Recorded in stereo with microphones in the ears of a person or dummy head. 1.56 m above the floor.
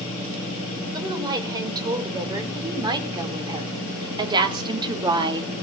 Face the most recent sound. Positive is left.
turn(degrees=-30)  # may be behind; listen again after turning